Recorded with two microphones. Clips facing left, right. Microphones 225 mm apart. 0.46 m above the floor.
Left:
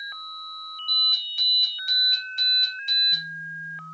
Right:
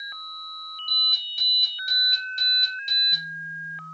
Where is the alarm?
40° right (ahead or behind), 1.4 m.